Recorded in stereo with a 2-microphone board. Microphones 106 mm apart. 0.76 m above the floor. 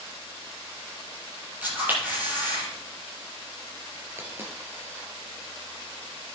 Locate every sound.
1.6 s a camera shutter: 20° right (ahead or behind), 6 m
4.2 s a dropped coin: 20° right (ahead or behind), 4 m